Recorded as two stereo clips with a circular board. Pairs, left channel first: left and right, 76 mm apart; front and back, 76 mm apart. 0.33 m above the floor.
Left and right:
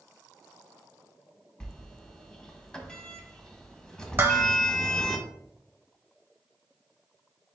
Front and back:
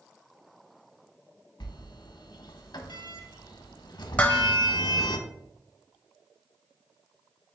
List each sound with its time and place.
1.6 s a sliding door: 10° left, 0.6 m
4.2 s dishes clattering: 60° right, 0.7 m